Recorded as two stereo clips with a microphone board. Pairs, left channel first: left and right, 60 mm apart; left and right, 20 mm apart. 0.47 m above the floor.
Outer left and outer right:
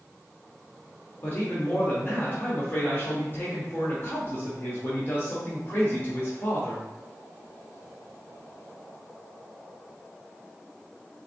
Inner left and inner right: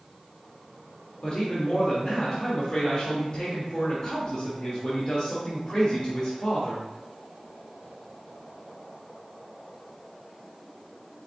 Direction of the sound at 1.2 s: 40° left (ahead or behind).